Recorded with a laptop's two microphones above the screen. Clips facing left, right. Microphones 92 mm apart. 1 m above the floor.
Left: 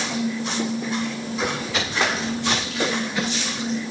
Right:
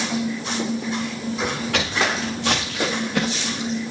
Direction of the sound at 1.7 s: 70° right (ahead or behind).